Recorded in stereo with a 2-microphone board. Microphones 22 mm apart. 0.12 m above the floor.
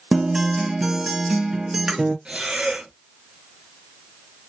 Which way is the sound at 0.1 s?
35° right (ahead or behind).